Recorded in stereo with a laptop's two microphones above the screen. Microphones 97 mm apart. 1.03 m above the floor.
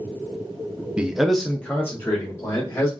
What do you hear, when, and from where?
1.0 s a man speaking: 10° right (ahead or behind), 0.5 m; by 2.9 s 25° left (ahead or behind), 1.3 m